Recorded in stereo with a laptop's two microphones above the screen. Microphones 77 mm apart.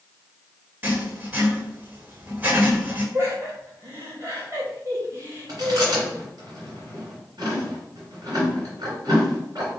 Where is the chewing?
55° right (ahead or behind), 2.5 m.